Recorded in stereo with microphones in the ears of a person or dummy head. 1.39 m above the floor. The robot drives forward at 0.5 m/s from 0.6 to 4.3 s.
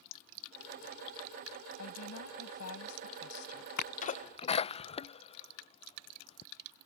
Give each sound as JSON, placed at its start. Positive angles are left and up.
{"t": 1.8, "sound": "a woman speaking", "side_deg": 75}
{"t": 3.8, "sound": "a sneeze", "side_deg": 55}